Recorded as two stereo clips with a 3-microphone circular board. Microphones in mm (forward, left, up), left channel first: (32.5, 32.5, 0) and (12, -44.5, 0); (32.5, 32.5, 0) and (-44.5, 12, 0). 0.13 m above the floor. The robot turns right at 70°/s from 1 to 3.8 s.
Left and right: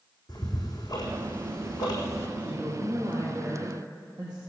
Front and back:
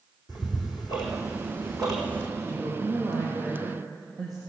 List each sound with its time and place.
0.3 s ticking: 45° left, 4 m; by 2.3 s 135° left, 4 m
2.4 s a woman speaking: 110° left, 4.5 m; by 4.4 s 150° right, 4.5 m